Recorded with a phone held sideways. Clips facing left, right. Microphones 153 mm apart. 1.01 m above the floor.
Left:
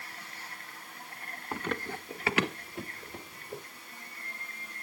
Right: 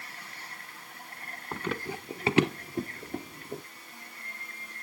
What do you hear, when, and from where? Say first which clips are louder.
1.5 s running footsteps: right 1 dB; 5° left (ahead or behind), 1.0 m; by 3.6 s 55° right (ahead or behind), 1.6 m